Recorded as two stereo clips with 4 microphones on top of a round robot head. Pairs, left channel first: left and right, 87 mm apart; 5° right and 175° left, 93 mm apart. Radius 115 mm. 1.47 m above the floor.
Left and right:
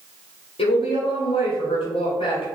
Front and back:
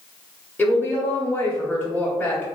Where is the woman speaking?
70° left, 0.9 m.